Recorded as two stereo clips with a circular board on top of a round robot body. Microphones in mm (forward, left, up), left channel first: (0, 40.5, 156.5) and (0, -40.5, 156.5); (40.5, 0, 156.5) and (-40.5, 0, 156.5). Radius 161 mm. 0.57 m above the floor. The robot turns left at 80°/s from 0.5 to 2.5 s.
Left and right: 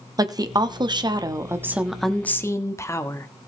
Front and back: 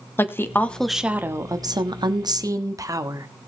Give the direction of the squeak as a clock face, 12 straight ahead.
I don't hear a squeak.